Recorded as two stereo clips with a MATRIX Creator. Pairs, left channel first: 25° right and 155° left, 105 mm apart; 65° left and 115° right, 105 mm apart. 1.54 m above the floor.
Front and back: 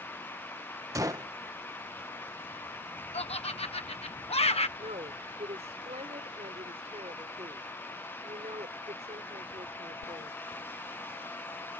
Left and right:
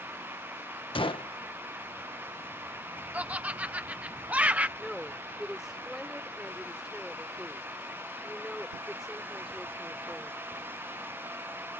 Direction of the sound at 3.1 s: 35° right.